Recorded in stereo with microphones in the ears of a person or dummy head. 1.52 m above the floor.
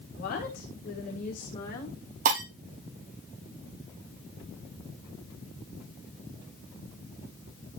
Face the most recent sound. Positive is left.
turn(degrees=-40)  # may be behind; listen again after turning